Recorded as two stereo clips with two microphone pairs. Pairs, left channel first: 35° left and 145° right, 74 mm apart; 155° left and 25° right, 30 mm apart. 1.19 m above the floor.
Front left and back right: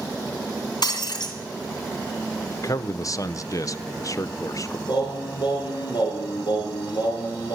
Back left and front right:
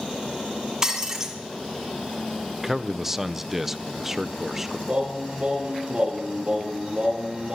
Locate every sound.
0.8 s breaking glass: 40° left, 2.5 m
2.6 s a man speaking: 45° left, 0.6 m
4.9 s singing: 30° left, 6 m